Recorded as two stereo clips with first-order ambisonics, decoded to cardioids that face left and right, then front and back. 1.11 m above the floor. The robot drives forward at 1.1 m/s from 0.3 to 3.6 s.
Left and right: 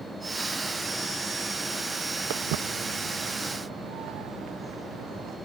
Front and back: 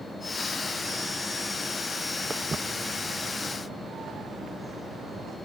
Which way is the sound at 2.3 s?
105° right.